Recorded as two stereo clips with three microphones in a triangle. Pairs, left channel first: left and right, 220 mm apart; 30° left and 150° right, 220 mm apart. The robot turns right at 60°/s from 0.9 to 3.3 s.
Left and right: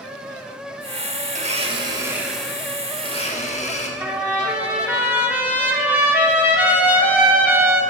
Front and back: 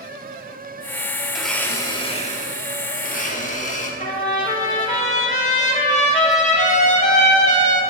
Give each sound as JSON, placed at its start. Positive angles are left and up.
{"t": 1.3, "sound": "a blender", "azimuth_deg": -65, "distance_m": 1.1}
{"t": 4.0, "sound": "a trumpet", "azimuth_deg": -10, "distance_m": 1.3}